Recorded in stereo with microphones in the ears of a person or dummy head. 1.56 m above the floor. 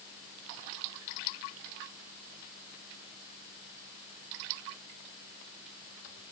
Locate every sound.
Only background noise.